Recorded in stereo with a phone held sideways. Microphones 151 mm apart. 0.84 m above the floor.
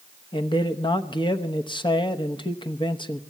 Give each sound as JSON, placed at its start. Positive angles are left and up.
{"t": 0.3, "sound": "a man speaking", "side_deg": 35, "distance_m": 1.0}